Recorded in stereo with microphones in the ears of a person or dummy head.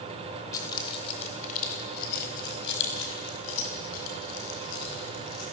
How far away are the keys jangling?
About 3 m.